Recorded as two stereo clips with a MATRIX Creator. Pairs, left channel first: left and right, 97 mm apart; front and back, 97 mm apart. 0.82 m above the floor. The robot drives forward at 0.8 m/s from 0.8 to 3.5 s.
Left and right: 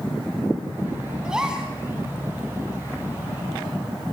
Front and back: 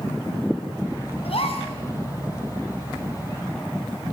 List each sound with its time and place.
1.2 s a gasp: 10° right, 6 m